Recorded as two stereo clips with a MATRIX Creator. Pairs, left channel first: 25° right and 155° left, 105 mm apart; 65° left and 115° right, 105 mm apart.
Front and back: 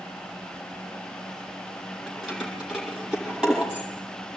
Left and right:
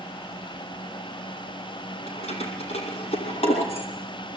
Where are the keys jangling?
70° left, 7 m; by 3.9 s 75° left, 6 m.